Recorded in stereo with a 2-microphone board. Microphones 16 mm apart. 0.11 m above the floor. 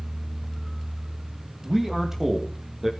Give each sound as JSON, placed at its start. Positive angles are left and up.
{"t": 1.6, "sound": "a man speaking", "side_deg": -30, "distance_m": 4.0}